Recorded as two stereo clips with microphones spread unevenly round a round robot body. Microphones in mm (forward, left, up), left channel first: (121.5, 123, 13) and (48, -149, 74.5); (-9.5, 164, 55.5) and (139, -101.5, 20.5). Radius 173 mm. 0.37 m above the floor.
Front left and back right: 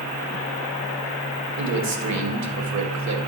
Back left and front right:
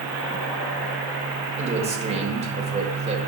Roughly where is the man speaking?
Behind right.